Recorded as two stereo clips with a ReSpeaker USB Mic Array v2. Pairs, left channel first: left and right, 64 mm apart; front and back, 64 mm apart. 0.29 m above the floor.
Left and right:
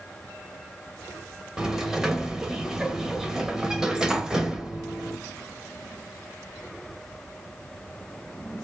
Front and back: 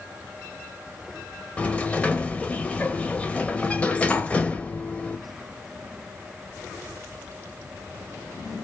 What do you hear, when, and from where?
1.6 s a sliding door: 25° right, 0.6 m